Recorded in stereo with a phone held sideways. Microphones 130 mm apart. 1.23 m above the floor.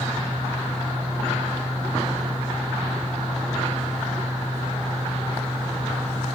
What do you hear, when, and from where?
0.0 s a fan: 35° right (ahead or behind)